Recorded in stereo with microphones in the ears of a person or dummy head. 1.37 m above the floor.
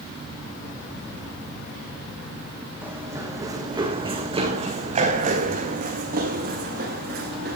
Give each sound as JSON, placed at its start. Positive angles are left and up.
{"t": 2.8, "sound": "running footsteps", "side_deg": -5, "distance_m": 3.5}